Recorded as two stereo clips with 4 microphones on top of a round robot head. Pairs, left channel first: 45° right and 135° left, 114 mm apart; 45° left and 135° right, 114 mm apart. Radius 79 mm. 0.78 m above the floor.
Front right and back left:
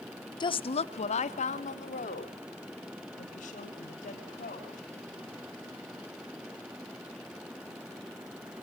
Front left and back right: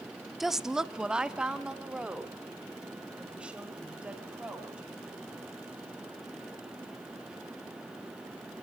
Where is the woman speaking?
45° right, 0.7 m; by 5.5 s 55° right, 6.5 m.